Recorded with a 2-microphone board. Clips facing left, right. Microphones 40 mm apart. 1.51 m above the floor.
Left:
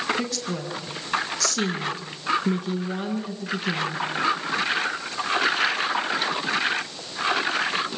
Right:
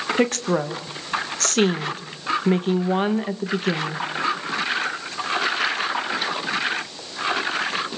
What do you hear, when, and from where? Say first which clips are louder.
0.2 s a woman speaking: right 8 dB; 45° right (ahead or behind), 1.9 m